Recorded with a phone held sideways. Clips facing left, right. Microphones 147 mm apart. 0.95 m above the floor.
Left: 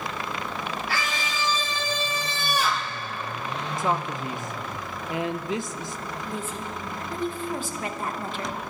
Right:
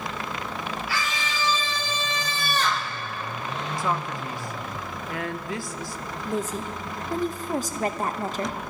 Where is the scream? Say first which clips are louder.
Even; 55° left (ahead or behind), 1.9 m; by 2.9 s 15° right (ahead or behind), 0.6 m.